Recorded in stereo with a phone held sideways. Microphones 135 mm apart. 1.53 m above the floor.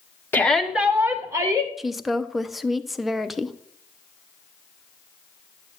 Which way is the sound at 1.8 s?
Centre (ahead or behind).